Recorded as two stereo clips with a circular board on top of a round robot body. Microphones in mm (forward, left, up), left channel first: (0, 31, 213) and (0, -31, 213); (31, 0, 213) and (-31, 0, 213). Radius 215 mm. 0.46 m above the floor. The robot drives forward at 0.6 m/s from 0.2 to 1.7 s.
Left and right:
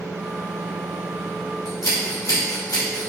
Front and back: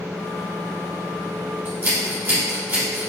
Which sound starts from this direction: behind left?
Scissors, at 1.6 s.